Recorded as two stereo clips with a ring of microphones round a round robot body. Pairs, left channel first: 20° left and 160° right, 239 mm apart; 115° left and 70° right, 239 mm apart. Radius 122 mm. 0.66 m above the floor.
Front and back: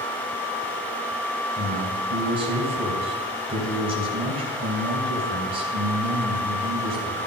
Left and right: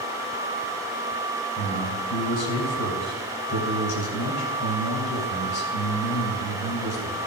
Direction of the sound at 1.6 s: 135° left.